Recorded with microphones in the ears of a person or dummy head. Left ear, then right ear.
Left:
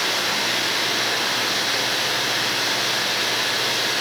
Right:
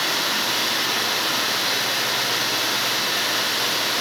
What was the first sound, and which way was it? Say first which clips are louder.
Running water: even; 50° right (ahead or behind).